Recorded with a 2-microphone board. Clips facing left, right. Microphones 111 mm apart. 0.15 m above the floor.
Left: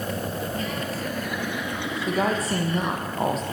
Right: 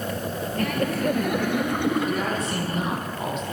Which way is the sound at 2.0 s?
35° left (ahead or behind).